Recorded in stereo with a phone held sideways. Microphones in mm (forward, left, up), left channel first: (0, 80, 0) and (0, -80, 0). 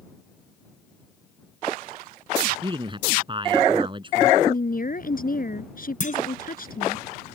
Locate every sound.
2.6 s a man speaking: 30° right (ahead or behind)
4.4 s a woman speaking: 60° left (ahead or behind)
6.0 s a clunk: 55° left (ahead or behind)